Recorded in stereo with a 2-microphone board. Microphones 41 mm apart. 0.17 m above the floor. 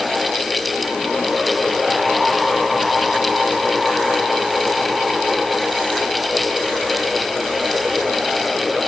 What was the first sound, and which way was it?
Only background noise.